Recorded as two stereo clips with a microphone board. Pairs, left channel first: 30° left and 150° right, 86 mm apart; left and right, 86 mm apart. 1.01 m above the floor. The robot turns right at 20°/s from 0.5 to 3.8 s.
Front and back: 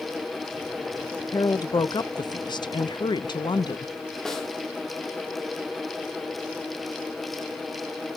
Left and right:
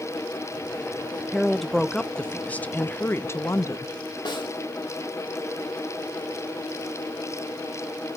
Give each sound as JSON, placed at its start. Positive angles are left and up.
{"t": 1.3, "sound": "a woman speaking", "azimuth_deg": -5, "distance_m": 0.6}
{"t": 4.2, "sound": "a snare drum", "azimuth_deg": 115, "distance_m": 2.5}